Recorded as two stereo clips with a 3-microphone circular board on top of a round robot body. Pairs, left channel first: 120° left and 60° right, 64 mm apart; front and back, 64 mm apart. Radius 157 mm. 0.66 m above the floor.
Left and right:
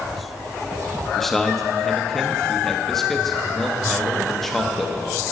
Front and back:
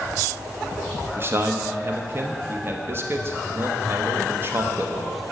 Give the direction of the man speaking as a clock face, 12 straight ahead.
5 o'clock.